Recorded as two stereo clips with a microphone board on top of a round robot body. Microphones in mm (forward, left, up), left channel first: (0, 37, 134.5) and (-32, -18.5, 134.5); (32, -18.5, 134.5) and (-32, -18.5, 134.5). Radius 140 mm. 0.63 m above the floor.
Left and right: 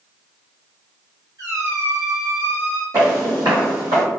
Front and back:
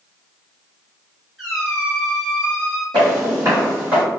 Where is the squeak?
90° right, 1.1 m.